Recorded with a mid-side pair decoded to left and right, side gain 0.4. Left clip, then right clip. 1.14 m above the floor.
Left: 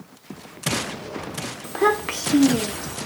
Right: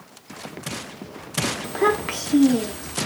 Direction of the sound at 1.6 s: 5° left.